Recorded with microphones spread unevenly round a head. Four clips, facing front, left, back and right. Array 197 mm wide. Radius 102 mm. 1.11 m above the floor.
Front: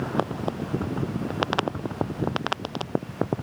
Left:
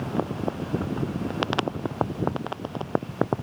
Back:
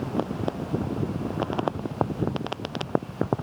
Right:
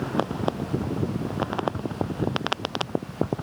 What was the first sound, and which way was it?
Only background noise.